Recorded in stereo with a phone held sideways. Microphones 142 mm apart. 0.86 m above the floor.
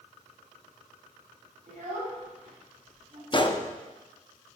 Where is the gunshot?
35° left (ahead or behind), 0.5 m.